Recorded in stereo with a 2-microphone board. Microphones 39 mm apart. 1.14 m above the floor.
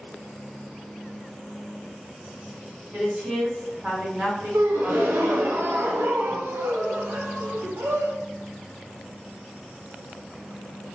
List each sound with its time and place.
2.9 s a woman speaking: 35° right (ahead or behind), 2.0 m
4.5 s a gasp: 85° right, 0.7 m